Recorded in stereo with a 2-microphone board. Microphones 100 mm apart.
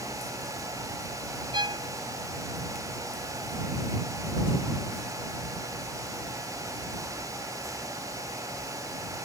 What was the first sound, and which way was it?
A violin, 50° right (ahead or behind).